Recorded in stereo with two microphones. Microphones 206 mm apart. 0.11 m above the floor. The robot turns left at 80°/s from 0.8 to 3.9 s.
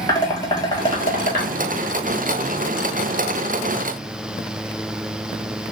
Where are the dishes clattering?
20° left (ahead or behind), 1.3 m; by 1.5 s 50° left (ahead or behind), 1.3 m.